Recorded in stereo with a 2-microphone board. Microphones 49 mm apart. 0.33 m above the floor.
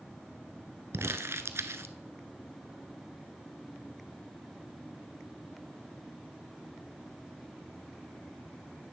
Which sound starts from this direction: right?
Crumpling, at 0.9 s.